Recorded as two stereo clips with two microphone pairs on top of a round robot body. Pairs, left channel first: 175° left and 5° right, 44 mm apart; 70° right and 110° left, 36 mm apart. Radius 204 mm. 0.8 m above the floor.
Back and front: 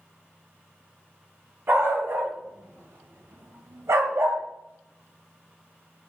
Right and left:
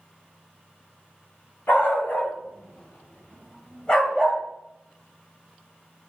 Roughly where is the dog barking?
Ahead right.